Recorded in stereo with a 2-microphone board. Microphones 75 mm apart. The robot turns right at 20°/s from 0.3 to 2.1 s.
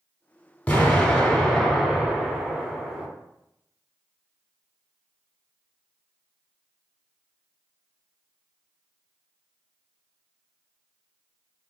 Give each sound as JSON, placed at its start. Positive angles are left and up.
{"t": 0.7, "sound": "an explosion", "side_deg": 25, "distance_m": 0.8}